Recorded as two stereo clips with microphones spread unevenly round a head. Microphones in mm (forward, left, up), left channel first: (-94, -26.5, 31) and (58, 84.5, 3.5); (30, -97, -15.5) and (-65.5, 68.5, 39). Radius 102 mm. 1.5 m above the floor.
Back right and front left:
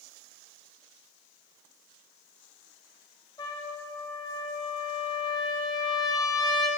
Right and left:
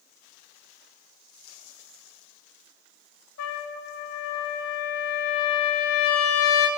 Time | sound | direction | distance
3.4 | a trumpet | 70° right | 3 m